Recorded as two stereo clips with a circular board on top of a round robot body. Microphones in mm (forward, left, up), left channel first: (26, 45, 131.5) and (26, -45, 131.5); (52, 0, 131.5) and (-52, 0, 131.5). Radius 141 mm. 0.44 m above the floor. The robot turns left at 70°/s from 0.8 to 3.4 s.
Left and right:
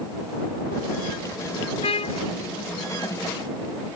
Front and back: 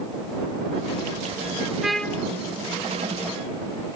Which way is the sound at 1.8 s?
95° left.